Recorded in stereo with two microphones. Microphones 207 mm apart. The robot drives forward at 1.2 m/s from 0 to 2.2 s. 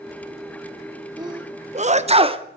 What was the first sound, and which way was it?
A sneeze, 20° right (ahead or behind).